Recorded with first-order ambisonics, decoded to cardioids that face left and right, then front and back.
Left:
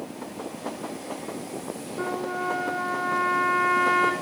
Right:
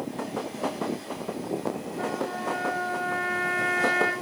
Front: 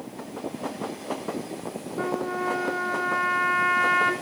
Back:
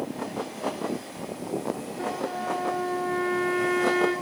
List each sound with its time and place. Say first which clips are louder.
2.0 s a trumpet: left 2 dB, front 5 dB; 30° left, 5 m